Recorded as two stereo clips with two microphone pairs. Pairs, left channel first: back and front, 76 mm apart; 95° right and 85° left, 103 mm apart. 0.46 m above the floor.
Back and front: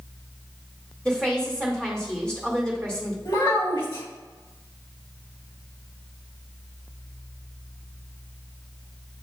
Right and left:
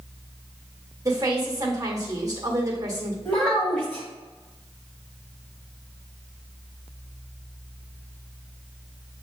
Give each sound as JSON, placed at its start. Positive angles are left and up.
{"t": 1.1, "sound": "a woman speaking", "azimuth_deg": 110, "distance_m": 1.6}
{"t": 3.2, "sound": "a child speaking", "azimuth_deg": -170, "distance_m": 2.0}